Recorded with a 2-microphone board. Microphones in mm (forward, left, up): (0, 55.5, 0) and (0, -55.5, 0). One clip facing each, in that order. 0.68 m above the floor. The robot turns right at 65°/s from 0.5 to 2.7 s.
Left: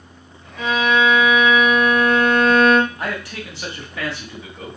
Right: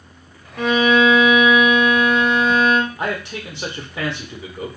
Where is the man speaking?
20° right (ahead or behind), 0.8 m.